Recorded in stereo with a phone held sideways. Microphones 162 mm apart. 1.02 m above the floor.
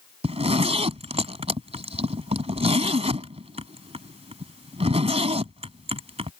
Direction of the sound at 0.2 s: 40° right (ahead or behind).